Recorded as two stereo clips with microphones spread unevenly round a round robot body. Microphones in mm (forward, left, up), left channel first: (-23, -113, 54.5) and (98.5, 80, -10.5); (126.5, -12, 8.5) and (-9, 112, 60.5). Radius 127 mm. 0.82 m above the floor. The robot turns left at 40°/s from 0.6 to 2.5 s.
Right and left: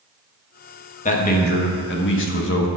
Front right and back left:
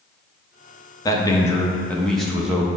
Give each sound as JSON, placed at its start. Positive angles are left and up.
{"t": 1.1, "sound": "a man speaking", "azimuth_deg": -60, "distance_m": 1.0}